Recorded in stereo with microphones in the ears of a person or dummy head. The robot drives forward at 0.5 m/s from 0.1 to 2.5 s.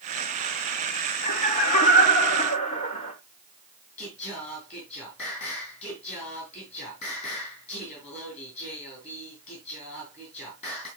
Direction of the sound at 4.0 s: 35° left (ahead or behind).